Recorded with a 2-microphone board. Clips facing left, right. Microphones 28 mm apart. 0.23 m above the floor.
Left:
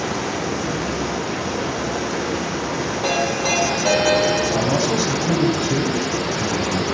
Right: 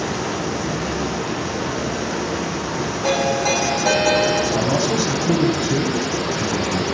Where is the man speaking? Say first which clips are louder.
Even; 20° left (ahead or behind), 1.1 m.